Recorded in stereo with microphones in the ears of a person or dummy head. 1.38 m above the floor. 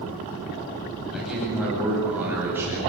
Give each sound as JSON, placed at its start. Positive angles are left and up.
{"t": 1.1, "sound": "a man speaking", "side_deg": 0, "distance_m": 10.0}